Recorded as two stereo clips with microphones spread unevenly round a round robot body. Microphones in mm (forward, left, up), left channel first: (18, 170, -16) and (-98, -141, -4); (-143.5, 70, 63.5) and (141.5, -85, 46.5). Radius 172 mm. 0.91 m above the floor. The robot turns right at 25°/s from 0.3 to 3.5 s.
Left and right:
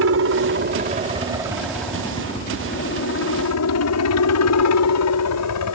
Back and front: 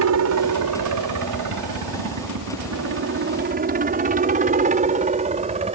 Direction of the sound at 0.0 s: 60° right.